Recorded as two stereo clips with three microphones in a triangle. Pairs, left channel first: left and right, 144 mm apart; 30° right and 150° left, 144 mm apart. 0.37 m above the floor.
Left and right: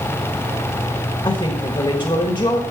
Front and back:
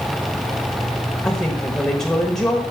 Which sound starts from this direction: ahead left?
A woman speaking, at 1.2 s.